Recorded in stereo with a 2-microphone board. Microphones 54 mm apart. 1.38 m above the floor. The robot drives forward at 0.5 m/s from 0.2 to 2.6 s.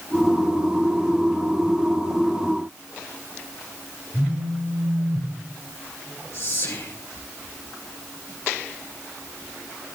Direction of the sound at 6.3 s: 70° left (ahead or behind).